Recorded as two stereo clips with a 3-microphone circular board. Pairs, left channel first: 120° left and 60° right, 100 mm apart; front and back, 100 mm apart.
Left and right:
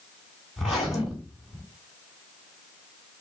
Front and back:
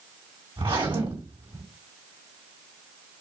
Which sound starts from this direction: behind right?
A zipper, at 0.6 s.